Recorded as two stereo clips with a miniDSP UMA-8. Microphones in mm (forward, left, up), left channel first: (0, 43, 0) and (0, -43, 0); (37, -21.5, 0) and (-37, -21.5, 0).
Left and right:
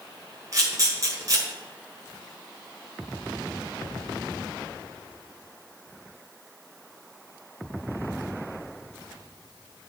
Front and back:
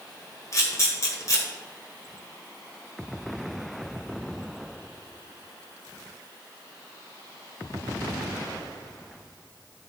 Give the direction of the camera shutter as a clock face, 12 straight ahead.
1 o'clock.